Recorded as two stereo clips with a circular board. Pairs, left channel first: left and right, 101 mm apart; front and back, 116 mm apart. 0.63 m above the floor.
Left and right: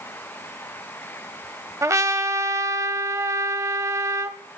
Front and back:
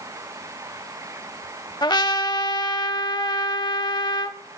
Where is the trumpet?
40° right, 0.6 m.